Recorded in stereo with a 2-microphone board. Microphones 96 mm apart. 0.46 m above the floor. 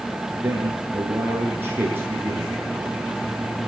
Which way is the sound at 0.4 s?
20° right (ahead or behind).